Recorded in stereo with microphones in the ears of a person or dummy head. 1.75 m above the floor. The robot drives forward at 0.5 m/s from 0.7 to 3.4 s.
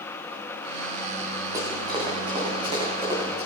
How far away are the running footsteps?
About 3.5 m.